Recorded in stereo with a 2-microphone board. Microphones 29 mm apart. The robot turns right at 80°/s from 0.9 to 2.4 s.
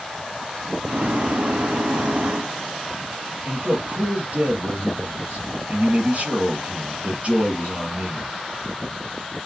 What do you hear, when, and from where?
3.5 s a man speaking: 50° right (ahead or behind), 4 m